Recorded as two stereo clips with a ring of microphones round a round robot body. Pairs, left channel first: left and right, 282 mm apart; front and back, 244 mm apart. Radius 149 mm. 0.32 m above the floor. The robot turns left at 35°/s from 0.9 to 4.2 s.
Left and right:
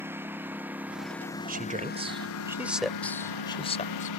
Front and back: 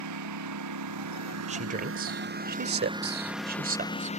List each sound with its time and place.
0.0 s a lawn mower: 175° right; by 4.2 s 60° left
1.5 s a man speaking: 130° right; by 4.1 s 135° left